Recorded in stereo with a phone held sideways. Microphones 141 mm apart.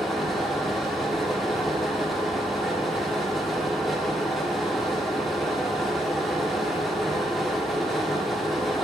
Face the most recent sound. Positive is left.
turn(degrees=0)  # may be behind; listen again after turning